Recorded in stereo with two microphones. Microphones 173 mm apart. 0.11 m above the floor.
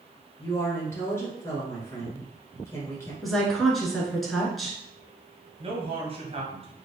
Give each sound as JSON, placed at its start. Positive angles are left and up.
{"t": 0.4, "sound": "a woman speaking", "side_deg": 15, "distance_m": 1.6}
{"t": 3.2, "sound": "a woman speaking", "side_deg": 0, "distance_m": 1.1}
{"t": 5.6, "sound": "a man speaking", "side_deg": -35, "distance_m": 1.3}